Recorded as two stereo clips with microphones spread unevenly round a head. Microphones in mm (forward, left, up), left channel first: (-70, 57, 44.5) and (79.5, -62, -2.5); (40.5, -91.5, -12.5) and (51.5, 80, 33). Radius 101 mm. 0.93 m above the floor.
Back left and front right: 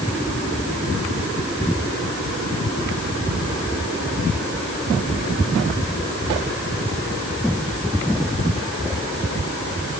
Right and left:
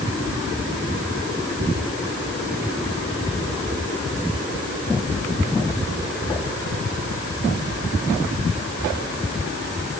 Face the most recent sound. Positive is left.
No sound to turn to.